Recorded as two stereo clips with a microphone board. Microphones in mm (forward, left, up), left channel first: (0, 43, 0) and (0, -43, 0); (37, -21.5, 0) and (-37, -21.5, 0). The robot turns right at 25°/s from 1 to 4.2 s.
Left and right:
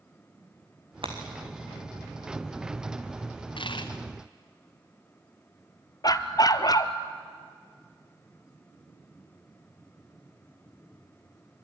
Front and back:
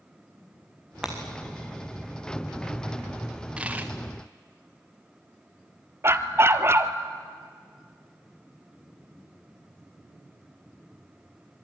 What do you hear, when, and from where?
1.0 s breaking glass: 100° right, 3.5 m; by 1.2 s 95° right, 3.5 m
3.6 s a dropped coin: 105° left, 2.0 m; by 3.9 s 115° left, 2.0 m
6.0 s a dog barking: 130° left, 0.9 m